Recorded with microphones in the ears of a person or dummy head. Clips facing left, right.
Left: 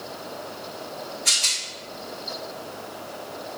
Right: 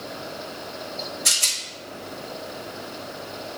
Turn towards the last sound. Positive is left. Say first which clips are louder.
# right 1 dB
turn(degrees=-55)  # may be behind; listen again after turning